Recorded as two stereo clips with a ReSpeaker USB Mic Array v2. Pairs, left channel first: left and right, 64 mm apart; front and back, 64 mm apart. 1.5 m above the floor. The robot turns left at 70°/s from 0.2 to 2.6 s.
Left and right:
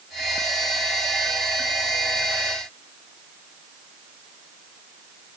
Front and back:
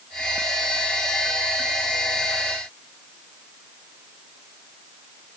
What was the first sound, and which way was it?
Only background noise.